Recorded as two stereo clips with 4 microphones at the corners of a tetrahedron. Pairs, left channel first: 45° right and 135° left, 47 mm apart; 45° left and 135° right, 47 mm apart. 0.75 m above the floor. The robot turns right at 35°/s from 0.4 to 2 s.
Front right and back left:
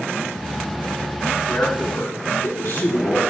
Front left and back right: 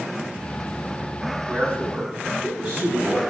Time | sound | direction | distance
1.5 | a man speaking | 80° right | 5 m